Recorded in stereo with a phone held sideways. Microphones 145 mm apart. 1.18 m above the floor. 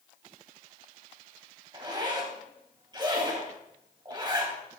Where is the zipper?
30° right (ahead or behind), 3 m.